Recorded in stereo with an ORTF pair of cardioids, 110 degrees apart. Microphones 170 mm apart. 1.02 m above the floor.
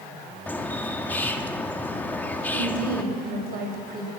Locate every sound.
0.5 s a bird: 10° left, 1.8 m
2.5 s a woman speaking: 60° right, 5.5 m